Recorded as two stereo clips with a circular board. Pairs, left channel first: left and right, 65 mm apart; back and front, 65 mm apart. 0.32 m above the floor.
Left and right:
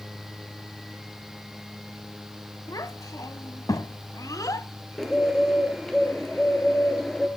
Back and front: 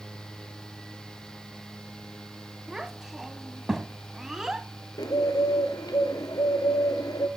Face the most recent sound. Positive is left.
turn(degrees=175)